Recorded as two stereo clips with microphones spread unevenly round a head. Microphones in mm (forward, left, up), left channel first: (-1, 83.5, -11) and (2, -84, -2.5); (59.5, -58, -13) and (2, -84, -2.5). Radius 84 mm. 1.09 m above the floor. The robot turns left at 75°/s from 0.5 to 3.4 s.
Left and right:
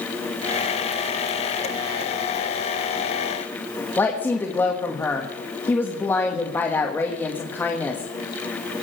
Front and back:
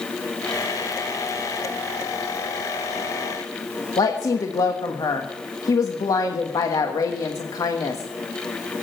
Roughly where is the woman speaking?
Ahead.